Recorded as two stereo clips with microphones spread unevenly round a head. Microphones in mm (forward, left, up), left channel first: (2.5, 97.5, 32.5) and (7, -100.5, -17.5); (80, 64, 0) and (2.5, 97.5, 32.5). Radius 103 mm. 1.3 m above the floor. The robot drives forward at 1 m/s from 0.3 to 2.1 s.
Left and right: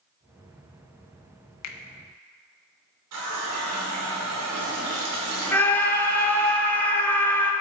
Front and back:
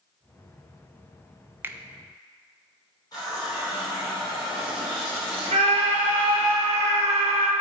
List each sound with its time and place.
1.6 s a finger snap: 90° left, 1.0 m; by 1.8 s 95° left, 1.0 m
3.1 s a running tap: 95° right, 2.5 m
5.5 s a scream: 175° left, 1.3 m